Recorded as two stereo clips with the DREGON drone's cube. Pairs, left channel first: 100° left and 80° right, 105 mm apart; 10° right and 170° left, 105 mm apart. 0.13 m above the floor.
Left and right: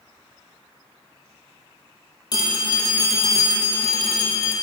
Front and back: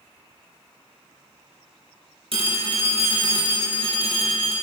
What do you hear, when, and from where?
2.3 s a phone ringing: 145° left, 1.7 m